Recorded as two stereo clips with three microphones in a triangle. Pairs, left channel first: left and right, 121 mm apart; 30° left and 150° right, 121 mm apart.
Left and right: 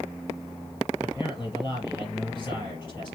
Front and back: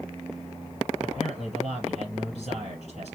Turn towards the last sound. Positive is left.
turn(degrees=40)